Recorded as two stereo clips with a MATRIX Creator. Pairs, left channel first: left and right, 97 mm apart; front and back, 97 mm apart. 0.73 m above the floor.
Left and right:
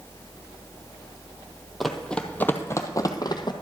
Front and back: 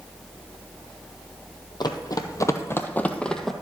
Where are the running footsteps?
Straight ahead, 1.0 m; by 3.5 s 85° left, 1.0 m.